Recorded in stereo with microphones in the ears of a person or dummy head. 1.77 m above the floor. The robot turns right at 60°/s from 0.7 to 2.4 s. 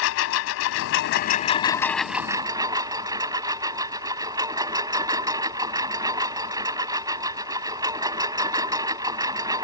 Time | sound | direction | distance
0.0 | a lawn mower | 100° left | ?